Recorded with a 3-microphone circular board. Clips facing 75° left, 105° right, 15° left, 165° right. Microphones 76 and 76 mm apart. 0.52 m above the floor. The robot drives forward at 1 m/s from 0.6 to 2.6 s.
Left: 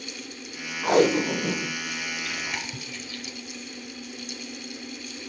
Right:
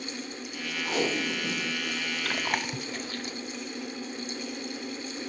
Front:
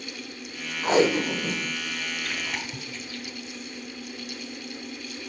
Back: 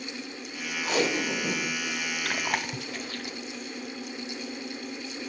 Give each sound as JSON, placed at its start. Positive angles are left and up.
{"t": 0.8, "sound": "tape being pulled", "azimuth_deg": 60, "distance_m": 0.8}
{"t": 2.2, "sound": "chewing", "azimuth_deg": -125, "distance_m": 0.8}